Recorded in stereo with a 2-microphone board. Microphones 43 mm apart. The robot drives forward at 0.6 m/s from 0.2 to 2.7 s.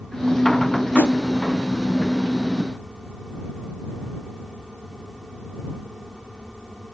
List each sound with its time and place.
0.9 s a whoosh: 70° left (ahead or behind), 0.9 m